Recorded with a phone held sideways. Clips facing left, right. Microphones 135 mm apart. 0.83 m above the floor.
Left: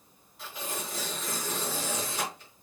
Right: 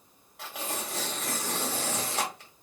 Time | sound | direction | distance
0.4 | tearing paper | 80° right | 1.5 m